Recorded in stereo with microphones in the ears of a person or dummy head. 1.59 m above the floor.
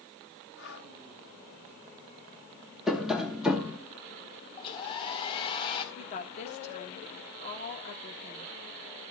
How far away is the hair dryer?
About 1.9 m.